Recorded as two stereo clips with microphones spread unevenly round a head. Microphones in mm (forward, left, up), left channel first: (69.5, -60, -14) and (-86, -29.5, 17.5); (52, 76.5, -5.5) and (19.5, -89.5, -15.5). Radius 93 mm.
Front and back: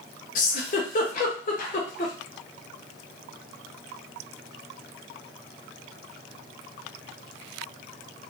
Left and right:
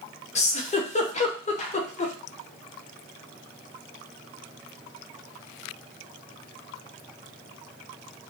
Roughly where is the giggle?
Ahead left.